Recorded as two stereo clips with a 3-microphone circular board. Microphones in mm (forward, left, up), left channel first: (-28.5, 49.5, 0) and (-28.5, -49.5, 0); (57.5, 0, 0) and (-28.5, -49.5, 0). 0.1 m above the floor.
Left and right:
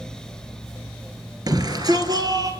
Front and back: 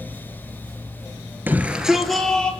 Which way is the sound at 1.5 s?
90° right.